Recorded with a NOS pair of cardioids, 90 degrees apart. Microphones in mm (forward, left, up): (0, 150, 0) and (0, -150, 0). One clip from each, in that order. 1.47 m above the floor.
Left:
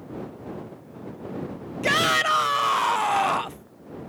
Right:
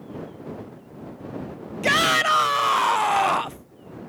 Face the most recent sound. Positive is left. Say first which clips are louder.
# right 2 dB
turn(degrees=-10)